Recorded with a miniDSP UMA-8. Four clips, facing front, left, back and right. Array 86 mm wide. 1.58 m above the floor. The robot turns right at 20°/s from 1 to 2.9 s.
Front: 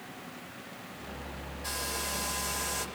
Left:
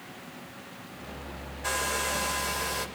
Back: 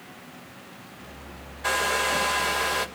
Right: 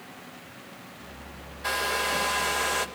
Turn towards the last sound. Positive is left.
turn(degrees=-140)